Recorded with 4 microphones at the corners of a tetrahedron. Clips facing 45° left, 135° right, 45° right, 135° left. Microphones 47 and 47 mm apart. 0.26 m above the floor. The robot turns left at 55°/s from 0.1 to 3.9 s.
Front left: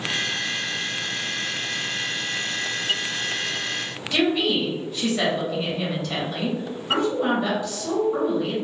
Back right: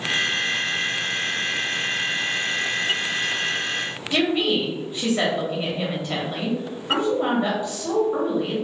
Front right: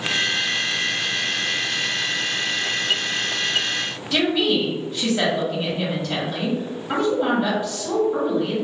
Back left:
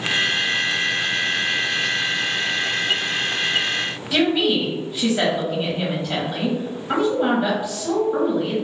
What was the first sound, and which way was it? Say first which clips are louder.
A woman speaking: even, back left 1 dB; 165° right.